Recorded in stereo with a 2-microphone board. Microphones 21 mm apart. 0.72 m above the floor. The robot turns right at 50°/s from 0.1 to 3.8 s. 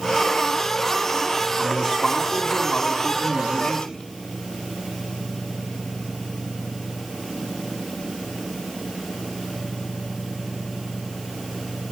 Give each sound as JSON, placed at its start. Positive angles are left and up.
{"t": 1.6, "sound": "a man speaking", "azimuth_deg": 10, "distance_m": 5.5}